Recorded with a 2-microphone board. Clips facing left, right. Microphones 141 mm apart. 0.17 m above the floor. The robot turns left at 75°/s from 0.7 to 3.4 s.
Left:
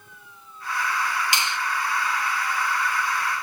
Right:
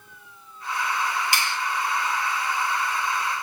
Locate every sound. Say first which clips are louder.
1.3 s a finger snap: even; 20° left (ahead or behind), 0.9 m